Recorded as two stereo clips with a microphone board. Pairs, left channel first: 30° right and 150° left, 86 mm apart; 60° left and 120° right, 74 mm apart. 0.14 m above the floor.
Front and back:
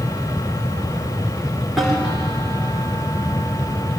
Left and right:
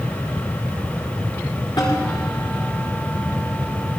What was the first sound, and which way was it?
A snare drum, 60° left.